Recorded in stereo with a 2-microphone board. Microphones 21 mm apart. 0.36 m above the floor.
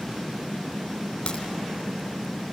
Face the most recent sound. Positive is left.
turn(degrees=45)  # may be behind; listen again after turning